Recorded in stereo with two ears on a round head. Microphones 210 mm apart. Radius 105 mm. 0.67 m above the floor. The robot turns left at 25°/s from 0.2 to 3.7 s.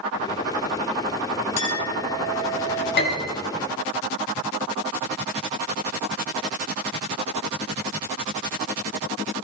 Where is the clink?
100° left, 7 m; by 2.9 s 70° left, 7 m.